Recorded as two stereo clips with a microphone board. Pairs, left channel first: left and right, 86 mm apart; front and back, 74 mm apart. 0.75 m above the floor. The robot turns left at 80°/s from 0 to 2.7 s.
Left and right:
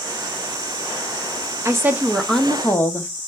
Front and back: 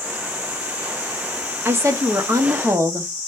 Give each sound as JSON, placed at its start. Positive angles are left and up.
{"t": 1.6, "sound": "a woman speaking", "azimuth_deg": -130, "distance_m": 0.7}